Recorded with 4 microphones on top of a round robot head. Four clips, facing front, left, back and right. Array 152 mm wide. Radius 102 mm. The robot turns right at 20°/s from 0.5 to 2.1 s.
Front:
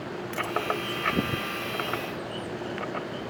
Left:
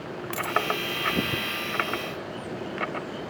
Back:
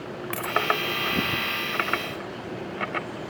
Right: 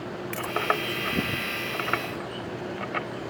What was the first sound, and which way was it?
A dropped coin, 155° left.